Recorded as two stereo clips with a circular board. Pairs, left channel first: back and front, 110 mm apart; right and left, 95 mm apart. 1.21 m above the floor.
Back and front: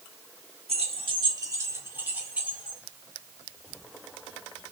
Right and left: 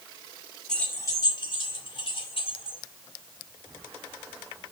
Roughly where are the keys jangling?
Ahead.